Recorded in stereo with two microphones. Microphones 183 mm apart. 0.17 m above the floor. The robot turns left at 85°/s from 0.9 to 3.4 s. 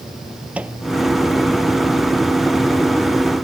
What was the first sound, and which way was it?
A microwave, 5° right (ahead or behind).